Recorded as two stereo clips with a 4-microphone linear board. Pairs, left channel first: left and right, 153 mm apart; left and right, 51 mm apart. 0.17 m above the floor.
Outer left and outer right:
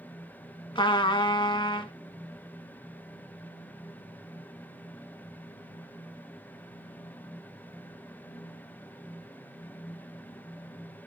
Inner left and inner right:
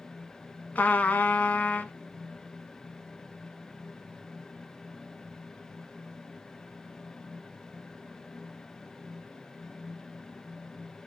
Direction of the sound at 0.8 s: 30° left (ahead or behind).